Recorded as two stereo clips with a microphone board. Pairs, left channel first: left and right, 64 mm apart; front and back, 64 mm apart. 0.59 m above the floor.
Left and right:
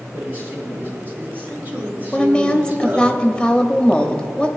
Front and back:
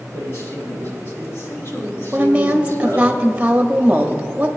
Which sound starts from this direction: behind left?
A woman speaking, at 2.1 s.